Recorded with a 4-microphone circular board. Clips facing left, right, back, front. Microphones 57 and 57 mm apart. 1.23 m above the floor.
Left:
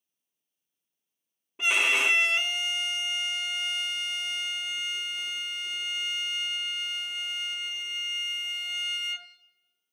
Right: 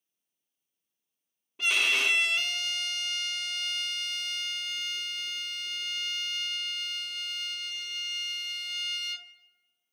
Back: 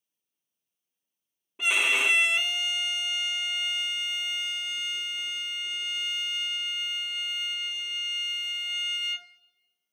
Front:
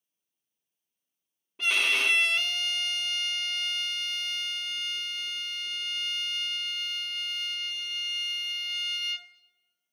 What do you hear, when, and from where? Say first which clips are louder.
1.6 s a violin: left 2 dB, back 1 dB; 125° left, 0.8 m